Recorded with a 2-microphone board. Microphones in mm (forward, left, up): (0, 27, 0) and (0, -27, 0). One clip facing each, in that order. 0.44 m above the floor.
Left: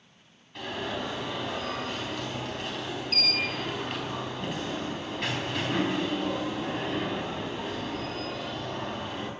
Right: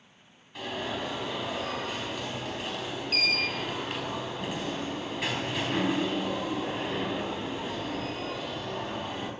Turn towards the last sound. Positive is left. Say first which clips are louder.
# even
turn(degrees=-5)  # may be behind; listen again after turning